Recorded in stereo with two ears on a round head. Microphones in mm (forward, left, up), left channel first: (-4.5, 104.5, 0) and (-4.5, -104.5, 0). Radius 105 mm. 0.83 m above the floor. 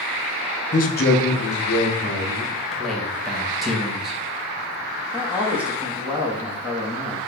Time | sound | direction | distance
0.7 | a man speaking | 30° left (ahead or behind) | 0.6 m
2.5 | a man speaking | centre (ahead or behind) | 1.1 m
5.1 | a man speaking | 5° right (ahead or behind) | 1.1 m